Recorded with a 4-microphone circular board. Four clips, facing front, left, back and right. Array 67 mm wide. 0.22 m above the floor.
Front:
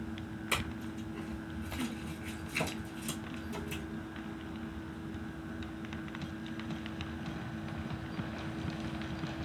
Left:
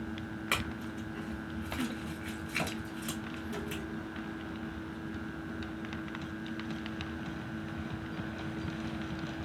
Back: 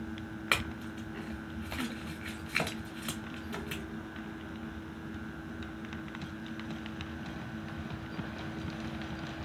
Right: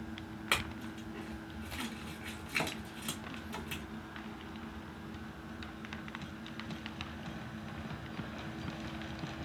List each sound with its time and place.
0.5 s a clink: 175° right, 1.3 m